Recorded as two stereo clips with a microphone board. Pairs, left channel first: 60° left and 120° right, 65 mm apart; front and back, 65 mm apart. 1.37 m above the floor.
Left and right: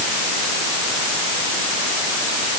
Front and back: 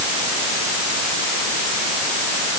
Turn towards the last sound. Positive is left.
No sound to turn to.